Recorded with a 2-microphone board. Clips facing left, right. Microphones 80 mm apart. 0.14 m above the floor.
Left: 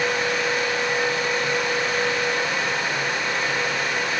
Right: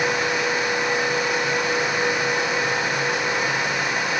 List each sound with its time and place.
Only background noise.